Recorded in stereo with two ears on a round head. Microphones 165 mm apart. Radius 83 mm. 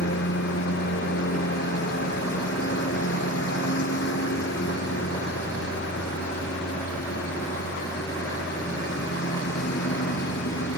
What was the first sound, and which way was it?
A lawn mower, 70° left (ahead or behind).